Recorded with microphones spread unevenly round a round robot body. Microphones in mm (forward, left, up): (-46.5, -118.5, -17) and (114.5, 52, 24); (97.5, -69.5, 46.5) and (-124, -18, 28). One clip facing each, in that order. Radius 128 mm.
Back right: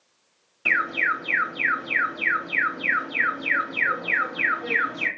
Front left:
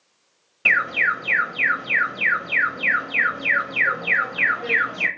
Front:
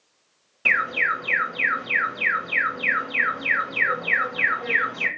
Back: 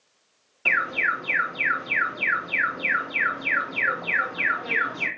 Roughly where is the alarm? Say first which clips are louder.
Even, front 1 dB; ahead left.